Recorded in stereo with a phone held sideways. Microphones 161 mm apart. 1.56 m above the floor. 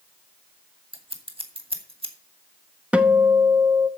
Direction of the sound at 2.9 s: 10° right (ahead or behind).